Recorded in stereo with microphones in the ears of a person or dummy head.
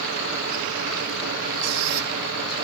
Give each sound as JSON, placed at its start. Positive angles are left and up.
{"t": 1.6, "sound": "a squeak", "side_deg": -80, "distance_m": 1.7}